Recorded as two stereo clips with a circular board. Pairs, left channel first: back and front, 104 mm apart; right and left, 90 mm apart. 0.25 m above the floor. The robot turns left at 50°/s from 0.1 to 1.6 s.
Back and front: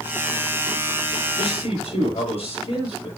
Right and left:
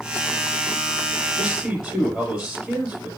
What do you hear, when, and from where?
1.4 s a man speaking: 175° right, 5.5 m; by 3.1 s 175° left, 5.5 m